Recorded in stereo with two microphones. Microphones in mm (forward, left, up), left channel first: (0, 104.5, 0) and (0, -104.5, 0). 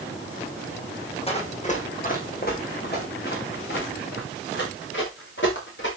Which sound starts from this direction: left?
Running footsteps, at 1.3 s.